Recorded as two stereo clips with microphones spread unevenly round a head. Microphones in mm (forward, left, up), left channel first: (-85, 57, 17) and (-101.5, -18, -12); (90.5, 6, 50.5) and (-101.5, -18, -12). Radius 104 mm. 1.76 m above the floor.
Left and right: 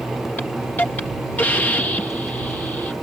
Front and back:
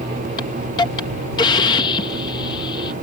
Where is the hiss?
45° left.